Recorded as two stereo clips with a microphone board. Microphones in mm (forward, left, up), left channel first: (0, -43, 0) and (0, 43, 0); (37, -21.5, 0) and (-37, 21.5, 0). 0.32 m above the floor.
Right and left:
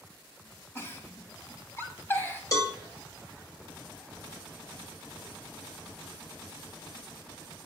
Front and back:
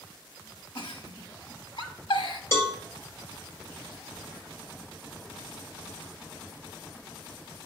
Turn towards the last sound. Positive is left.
turn(degrees=-75)